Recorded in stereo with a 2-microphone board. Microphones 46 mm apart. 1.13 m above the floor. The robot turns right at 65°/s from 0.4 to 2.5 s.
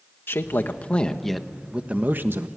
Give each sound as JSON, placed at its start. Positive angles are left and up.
{"t": 0.3, "sound": "a man speaking", "azimuth_deg": 115, "distance_m": 1.3}